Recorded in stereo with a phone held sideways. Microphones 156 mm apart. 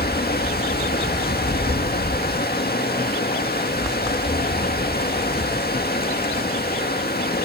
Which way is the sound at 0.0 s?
85° left.